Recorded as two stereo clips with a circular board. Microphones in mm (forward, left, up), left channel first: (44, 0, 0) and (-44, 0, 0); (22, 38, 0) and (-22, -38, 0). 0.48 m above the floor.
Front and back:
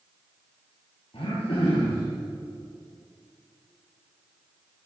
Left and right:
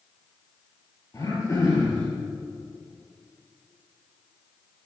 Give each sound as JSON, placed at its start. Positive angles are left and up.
{"t": 1.1, "sound": "throat clearing", "azimuth_deg": 10, "distance_m": 2.5}